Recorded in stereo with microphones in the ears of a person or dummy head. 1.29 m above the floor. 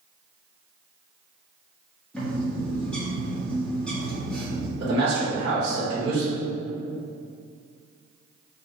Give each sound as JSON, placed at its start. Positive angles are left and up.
{"t": 2.1, "sound": "a bird", "side_deg": 5, "distance_m": 1.2}
{"t": 4.8, "sound": "a man speaking", "side_deg": -35, "distance_m": 0.9}